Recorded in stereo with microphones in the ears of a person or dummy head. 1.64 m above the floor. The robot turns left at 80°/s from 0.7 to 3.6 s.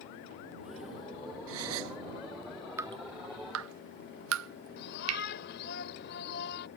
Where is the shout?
60° left (ahead or behind).